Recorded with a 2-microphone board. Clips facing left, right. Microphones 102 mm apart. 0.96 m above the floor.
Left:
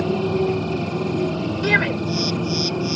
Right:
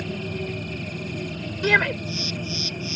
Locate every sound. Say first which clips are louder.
0.0 s a motorcycle: left 11 dB; 90° left; by 3.0 s 85° left
1.6 s a shout: even; centre (ahead or behind)